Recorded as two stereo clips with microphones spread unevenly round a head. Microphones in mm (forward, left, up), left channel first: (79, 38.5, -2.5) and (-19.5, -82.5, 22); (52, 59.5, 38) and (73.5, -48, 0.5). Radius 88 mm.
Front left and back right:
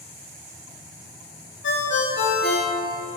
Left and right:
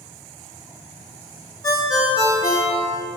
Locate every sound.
1.6 s a ringtone: 50° left, 2.5 m